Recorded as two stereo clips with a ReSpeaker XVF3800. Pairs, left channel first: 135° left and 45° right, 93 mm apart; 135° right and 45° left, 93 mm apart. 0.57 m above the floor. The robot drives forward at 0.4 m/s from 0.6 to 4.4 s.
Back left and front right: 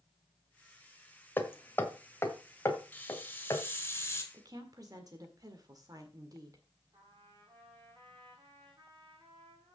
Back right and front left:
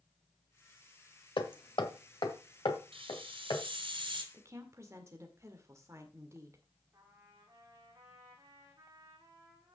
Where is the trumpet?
10° right, 6.5 m.